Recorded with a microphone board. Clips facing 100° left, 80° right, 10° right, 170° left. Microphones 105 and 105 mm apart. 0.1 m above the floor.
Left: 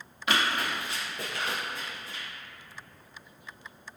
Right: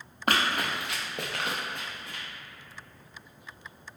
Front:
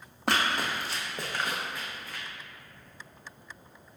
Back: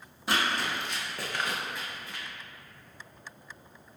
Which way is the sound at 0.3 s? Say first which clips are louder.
Right 1 dB, front 1 dB; 35° right.